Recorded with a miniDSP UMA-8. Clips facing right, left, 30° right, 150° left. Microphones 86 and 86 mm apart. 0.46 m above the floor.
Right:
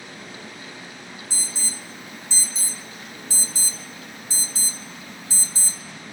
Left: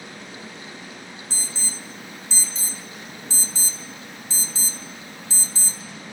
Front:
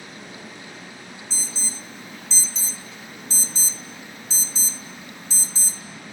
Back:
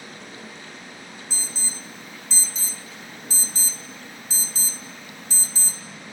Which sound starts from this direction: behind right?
An alarm, at 1.3 s.